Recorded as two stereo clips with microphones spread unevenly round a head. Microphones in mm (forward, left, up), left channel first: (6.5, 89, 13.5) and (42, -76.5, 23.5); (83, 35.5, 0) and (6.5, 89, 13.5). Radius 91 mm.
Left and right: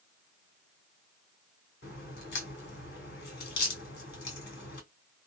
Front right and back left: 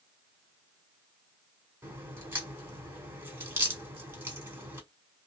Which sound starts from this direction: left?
A crack, at 1.8 s.